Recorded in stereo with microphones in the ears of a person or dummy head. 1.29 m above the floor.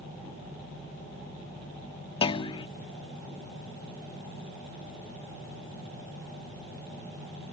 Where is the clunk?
30° left (ahead or behind).